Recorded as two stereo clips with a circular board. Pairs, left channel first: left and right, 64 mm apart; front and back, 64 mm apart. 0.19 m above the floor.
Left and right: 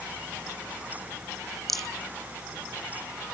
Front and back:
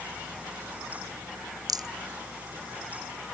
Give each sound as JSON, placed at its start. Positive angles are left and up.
{"t": 1.7, "sound": "a rattle", "azimuth_deg": 175}